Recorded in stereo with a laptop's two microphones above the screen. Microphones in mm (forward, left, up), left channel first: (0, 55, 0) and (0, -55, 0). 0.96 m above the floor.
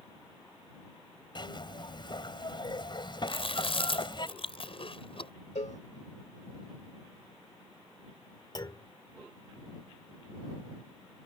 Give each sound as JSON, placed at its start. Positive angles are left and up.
{"t": 1.4, "sound": "a zipper", "side_deg": 45}
{"t": 3.3, "sound": "chewing", "side_deg": 55}
{"t": 5.5, "sound": "a cowbell", "side_deg": 90}
{"t": 8.6, "sound": "a clunk", "side_deg": 40}